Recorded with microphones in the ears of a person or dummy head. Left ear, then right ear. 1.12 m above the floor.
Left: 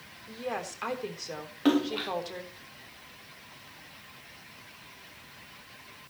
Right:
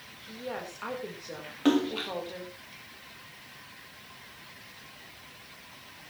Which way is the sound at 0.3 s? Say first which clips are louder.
Left 3 dB; 85° left.